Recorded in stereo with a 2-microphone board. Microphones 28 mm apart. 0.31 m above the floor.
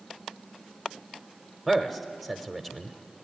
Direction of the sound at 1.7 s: 5° left (ahead or behind).